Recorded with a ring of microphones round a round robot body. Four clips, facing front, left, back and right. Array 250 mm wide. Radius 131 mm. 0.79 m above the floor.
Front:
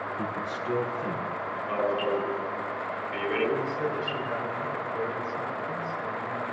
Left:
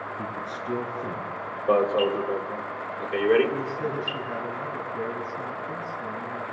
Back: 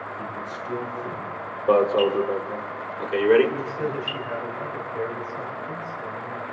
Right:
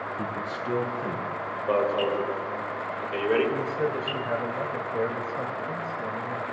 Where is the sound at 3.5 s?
105° right, 5.5 m.